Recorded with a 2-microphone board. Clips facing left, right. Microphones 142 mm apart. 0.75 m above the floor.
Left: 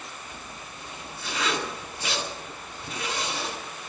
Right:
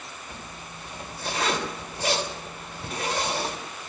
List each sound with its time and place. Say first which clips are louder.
0.3 s a zipper: right 1 dB; 50° right (ahead or behind), 3 m